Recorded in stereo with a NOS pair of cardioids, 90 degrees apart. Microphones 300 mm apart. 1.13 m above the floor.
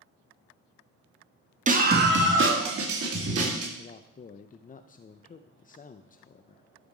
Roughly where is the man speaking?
Ahead left.